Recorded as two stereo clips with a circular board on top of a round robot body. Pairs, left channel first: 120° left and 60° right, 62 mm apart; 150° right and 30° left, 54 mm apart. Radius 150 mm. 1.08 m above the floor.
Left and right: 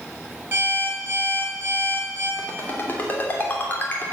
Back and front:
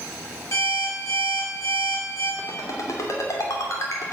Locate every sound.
0.5 s an alarm clock: 115° right, 6 m
2.4 s a ringtone: straight behind, 2.5 m